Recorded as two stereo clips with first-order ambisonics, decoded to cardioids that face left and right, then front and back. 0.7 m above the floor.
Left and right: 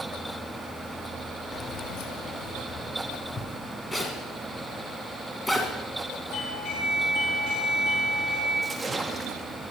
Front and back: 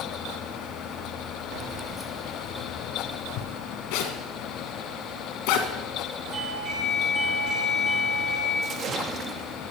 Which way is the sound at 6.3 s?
120° left.